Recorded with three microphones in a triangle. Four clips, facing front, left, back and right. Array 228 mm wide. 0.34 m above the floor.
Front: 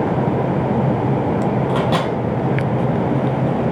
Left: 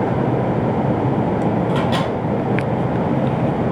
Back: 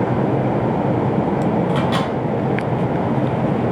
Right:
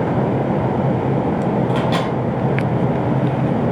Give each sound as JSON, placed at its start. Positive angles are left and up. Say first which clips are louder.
{"t": 1.7, "sound": "a microwave", "louder": "even, front 1 dB", "azimuth_deg": -15, "distance_m": 0.8}